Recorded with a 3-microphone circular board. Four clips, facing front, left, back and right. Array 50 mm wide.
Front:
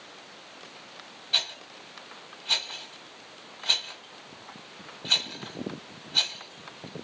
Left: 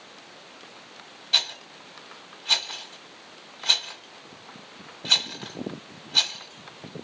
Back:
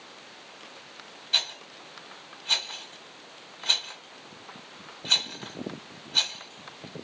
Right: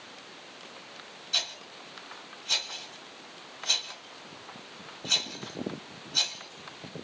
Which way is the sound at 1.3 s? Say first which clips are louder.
Left 6 dB, even; 95° left.